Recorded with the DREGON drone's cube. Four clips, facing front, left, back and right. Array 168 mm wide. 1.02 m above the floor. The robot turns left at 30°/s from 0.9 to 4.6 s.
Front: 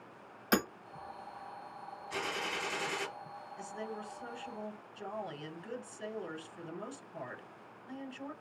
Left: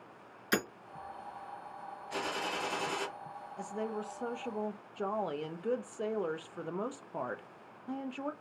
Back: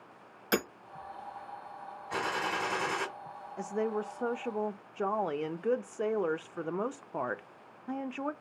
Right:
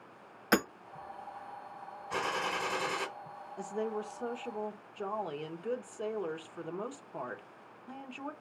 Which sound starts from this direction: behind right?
A gunshot, at 2.1 s.